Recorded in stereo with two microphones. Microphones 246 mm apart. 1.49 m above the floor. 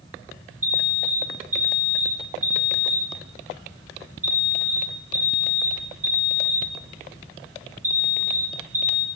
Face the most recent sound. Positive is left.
turn(degrees=-65)  # may be behind; listen again after turning